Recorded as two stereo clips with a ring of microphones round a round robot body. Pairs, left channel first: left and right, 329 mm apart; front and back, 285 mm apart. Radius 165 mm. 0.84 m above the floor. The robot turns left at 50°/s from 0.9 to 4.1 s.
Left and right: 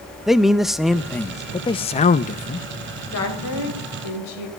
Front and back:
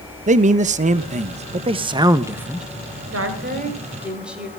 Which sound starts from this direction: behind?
A man speaking, at 0.3 s.